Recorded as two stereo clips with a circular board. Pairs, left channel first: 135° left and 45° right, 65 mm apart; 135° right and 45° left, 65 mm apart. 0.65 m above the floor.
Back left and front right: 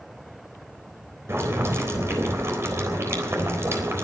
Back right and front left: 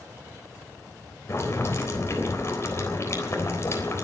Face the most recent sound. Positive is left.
turn(degrees=-90)